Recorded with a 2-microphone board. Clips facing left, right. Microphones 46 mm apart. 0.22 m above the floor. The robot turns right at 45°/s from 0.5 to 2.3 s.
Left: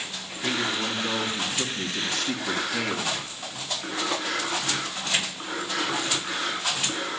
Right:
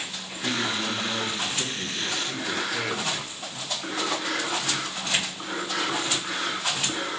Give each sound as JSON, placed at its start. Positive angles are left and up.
{"t": 0.4, "sound": "a man speaking", "azimuth_deg": 0, "distance_m": 3.0}